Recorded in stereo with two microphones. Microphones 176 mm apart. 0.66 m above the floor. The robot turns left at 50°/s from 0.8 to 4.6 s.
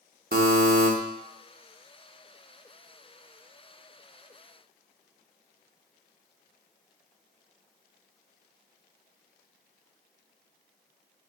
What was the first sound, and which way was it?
A buzzer, 60° right (ahead or behind).